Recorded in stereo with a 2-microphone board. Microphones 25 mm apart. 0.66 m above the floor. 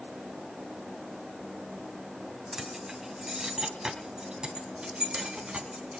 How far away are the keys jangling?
About 3 m.